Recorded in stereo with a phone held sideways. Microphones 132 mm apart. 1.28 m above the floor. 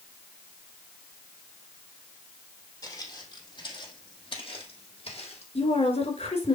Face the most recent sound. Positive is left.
turn(degrees=55)  # may be behind; listen again after turning